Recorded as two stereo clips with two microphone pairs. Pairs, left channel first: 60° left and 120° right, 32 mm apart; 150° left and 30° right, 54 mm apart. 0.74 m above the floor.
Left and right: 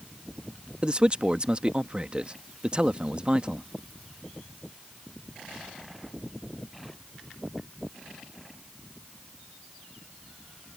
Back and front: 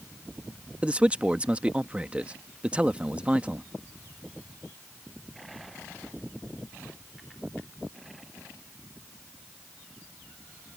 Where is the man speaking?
80° right.